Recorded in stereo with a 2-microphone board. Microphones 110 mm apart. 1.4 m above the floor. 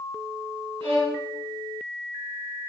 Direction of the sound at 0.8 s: 50° right (ahead or behind).